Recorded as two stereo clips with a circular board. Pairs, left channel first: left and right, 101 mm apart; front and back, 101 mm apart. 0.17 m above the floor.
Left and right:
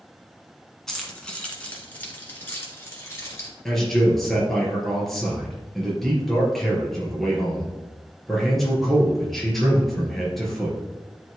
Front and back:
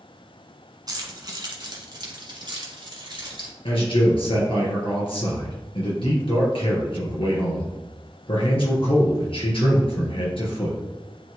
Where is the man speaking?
5° left, 2.5 m.